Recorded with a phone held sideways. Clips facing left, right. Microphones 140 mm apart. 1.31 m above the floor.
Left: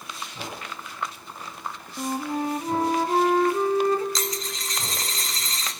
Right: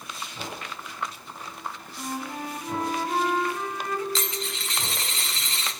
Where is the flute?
30° left (ahead or behind), 0.6 m.